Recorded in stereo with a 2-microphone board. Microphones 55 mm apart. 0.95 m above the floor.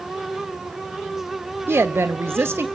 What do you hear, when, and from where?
1.7 s a woman speaking: 50° right (ahead or behind), 0.8 m